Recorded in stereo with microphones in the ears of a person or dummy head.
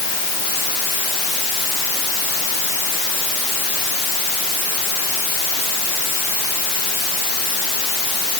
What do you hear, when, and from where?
Only background noise.